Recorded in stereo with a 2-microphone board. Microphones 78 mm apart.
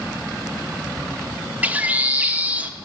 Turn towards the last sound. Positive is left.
turn(degrees=-20)  # may be behind; listen again after turning